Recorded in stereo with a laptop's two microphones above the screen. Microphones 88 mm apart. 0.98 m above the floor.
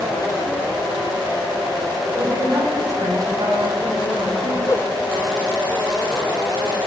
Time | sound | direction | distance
2.1 | a woman speaking | 30° right (ahead or behind) | 6 m
4.7 | a whoosh | 35° left (ahead or behind) | 0.7 m